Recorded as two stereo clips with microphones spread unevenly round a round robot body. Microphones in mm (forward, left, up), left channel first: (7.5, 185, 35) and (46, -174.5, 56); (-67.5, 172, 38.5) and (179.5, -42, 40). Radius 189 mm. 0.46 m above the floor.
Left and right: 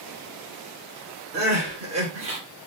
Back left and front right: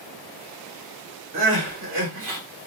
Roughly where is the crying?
Ahead.